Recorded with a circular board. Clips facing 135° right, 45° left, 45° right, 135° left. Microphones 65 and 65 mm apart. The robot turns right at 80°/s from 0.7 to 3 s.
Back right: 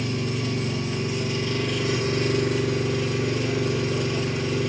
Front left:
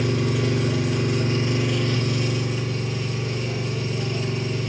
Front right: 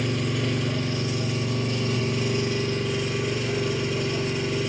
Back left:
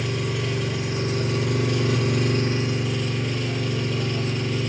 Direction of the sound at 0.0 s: 50° left.